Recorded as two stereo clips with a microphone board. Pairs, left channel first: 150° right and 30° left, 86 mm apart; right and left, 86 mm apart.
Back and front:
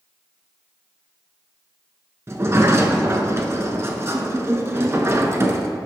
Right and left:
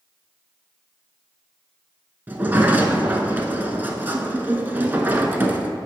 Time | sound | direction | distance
2.3 | a sliding door | 40° left | 0.7 m